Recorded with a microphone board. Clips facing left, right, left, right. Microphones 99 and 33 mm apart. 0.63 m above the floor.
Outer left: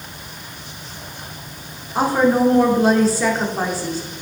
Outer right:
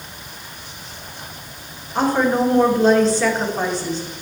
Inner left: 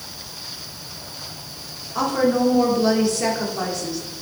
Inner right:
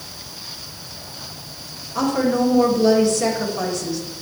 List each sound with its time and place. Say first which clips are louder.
1.9 s a woman speaking: outer left 2 dB, even; 10° left (ahead or behind), 1.7 m